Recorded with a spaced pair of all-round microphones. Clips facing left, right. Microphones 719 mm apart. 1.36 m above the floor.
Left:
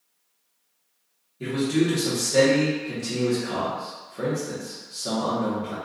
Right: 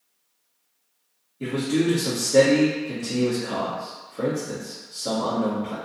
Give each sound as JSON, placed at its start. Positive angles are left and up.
{"t": 1.4, "sound": "a man speaking", "side_deg": 25, "distance_m": 0.9}